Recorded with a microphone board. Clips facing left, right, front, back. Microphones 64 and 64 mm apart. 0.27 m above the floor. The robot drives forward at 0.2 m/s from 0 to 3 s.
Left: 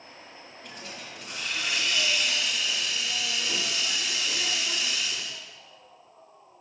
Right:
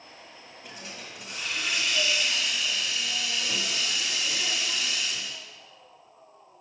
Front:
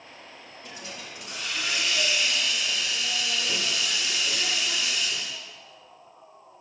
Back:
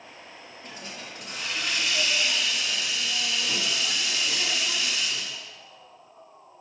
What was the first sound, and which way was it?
A hiss, 170° right.